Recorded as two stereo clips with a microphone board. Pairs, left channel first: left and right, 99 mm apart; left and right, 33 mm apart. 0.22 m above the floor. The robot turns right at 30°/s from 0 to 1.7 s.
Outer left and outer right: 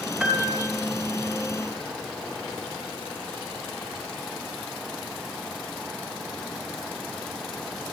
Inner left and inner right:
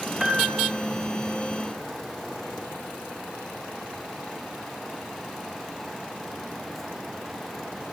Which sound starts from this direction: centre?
A piano, at 0.2 s.